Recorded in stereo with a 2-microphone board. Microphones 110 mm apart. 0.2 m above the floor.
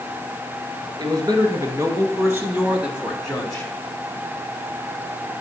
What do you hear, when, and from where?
1.0 s a man speaking: 40° right (ahead or behind), 2.5 m; by 3.7 s 15° left (ahead or behind), 1.7 m